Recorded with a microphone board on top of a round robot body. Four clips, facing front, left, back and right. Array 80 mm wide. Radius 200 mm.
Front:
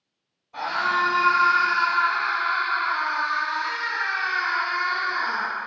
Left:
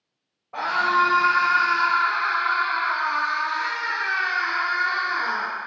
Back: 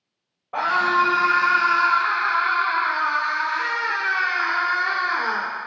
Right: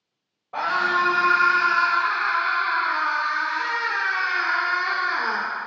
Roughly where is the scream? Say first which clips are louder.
Left 1 dB, back 5 dB; behind.